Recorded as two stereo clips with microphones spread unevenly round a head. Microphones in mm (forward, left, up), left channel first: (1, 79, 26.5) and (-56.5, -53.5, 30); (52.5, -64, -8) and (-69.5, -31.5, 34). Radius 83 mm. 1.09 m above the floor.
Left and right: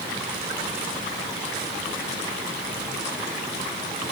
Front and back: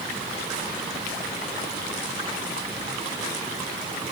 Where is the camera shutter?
No camera shutter in this recording.